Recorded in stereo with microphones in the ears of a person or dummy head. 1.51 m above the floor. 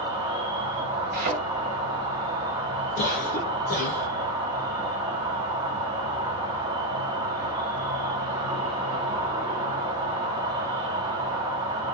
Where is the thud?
50° right (ahead or behind), 1.4 m.